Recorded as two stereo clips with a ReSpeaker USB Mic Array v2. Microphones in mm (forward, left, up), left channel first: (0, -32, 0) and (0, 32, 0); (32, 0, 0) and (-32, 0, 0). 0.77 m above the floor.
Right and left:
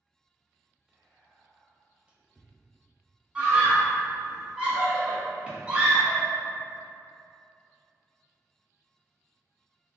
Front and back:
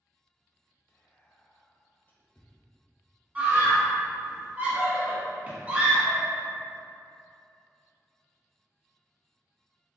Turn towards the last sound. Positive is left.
turn(degrees=145)